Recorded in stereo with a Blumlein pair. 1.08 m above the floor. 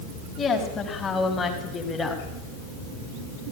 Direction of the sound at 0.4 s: 15° left.